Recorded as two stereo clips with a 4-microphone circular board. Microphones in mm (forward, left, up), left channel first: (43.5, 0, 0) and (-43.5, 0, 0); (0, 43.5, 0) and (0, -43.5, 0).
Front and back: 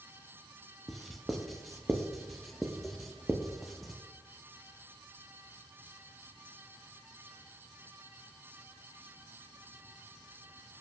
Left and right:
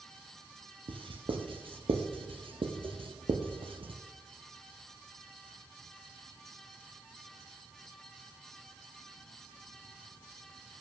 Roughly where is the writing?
Right.